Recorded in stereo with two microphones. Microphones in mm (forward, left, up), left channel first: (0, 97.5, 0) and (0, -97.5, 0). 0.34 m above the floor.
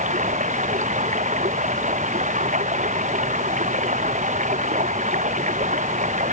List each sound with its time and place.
0.0 s running water: 40° right (ahead or behind)